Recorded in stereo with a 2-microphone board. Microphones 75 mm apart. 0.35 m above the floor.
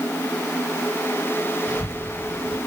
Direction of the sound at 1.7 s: 60° left (ahead or behind).